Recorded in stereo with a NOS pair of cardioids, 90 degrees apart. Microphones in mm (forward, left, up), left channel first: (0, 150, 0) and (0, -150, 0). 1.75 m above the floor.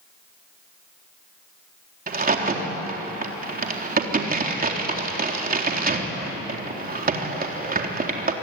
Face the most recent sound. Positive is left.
turn(degrees=-30)